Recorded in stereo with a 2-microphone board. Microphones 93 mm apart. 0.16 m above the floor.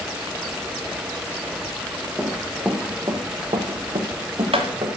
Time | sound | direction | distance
2.2 | running footsteps | 10° right (ahead or behind) | 2.5 m